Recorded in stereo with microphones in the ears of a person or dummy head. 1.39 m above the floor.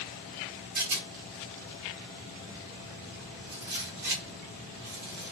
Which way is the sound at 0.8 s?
55° right (ahead or behind).